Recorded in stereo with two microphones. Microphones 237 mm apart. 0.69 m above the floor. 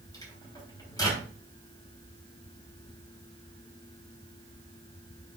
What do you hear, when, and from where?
0.1 s a microwave: 15° left (ahead or behind), 3.5 m